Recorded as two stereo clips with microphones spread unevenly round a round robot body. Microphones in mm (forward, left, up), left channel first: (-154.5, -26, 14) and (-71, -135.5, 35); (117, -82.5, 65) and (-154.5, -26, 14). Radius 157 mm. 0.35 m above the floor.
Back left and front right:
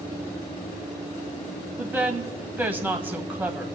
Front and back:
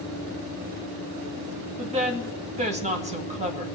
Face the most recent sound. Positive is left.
turn(degrees=-130)